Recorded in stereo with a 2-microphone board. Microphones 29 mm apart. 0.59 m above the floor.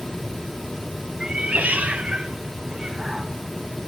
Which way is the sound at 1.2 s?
30° right (ahead or behind).